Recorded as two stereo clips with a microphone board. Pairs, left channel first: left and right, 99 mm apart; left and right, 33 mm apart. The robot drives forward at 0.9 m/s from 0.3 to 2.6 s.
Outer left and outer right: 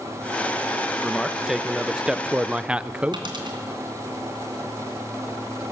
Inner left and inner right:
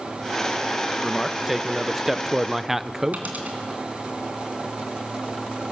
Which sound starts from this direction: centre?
A man speaking, at 1.0 s.